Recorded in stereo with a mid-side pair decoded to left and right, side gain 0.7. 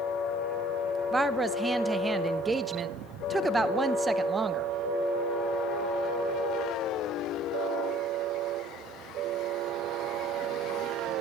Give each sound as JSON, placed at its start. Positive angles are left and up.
{"t": 1.1, "sound": "a woman speaking", "azimuth_deg": -10, "distance_m": 0.9}